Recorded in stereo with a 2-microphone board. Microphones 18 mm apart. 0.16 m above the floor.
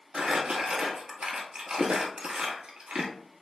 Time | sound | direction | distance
0.1 | crumpling | 75° right (ahead or behind) | 1.3 m